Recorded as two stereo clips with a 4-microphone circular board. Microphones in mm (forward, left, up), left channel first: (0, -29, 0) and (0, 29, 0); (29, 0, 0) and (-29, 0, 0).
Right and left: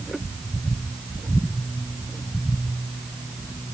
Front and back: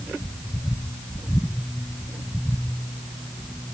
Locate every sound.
Only background noise.